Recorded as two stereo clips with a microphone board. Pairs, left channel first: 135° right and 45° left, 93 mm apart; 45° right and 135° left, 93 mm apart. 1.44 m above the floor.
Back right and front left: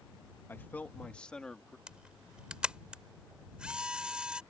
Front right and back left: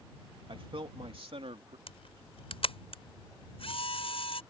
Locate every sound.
0.5 s a man speaking: 160° left; by 1.8 s 140° left
1.9 s a camera shutter: 35° right